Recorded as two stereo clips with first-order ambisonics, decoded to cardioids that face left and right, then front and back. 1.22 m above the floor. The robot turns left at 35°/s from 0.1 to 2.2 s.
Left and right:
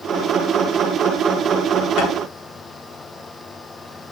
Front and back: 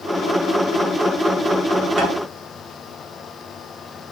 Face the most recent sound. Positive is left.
turn(degrees=115)